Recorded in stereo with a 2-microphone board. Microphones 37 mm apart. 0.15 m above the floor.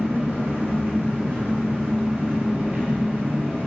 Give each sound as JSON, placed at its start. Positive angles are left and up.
{"t": 0.0, "sound": "an engine running", "side_deg": -55, "distance_m": 0.8}